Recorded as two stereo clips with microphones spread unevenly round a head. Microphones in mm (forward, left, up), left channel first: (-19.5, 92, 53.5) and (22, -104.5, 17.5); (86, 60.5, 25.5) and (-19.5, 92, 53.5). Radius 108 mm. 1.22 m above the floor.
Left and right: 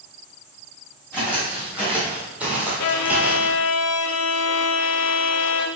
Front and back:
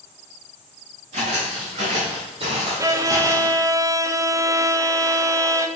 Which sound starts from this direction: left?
A violin, at 2.8 s.